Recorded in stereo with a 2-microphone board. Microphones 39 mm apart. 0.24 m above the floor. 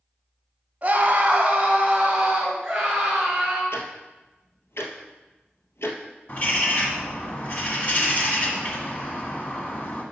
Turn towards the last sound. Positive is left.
turn(degrees=40)  # may be behind; listen again after turning